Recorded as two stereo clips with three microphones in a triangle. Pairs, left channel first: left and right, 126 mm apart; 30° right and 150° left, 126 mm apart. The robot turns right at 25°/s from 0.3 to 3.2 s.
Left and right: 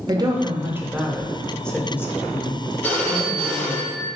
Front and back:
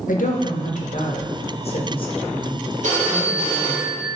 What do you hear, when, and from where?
0.1 s a woman speaking: 25° right, 0.6 m; by 3.8 s 45° left, 0.6 m
2.8 s a phone ringing: 165° left, 0.9 m; by 4.1 s 175° left, 0.9 m